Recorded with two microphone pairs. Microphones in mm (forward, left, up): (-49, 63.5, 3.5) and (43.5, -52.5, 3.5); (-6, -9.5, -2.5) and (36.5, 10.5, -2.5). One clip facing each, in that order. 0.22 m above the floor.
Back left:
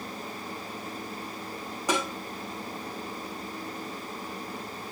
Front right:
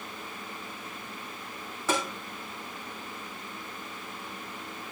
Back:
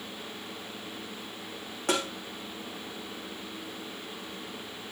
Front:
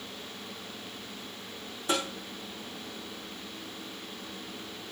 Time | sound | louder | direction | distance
1.9 | tapping | back left 1 dB, back 1 dB | 155° right | 6.5 m